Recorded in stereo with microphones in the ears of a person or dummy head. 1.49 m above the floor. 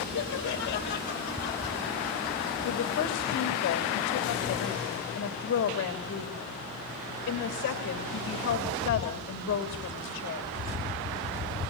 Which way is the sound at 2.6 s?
60° left (ahead or behind).